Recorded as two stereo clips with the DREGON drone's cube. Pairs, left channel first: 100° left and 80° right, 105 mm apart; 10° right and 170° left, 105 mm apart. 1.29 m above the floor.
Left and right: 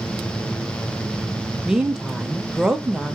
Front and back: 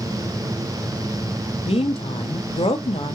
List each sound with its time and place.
1.6 s a woman speaking: 5° left, 0.6 m